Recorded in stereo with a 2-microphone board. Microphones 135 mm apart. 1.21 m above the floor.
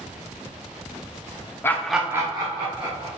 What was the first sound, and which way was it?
Laughter, 15° left (ahead or behind).